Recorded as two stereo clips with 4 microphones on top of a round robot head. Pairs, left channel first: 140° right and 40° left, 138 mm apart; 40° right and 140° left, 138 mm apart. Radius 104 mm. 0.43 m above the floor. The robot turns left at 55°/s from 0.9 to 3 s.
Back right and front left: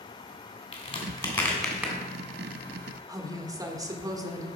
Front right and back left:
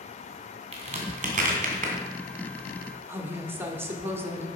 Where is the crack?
170° left, 2.5 m; by 1.9 s 115° left, 2.5 m.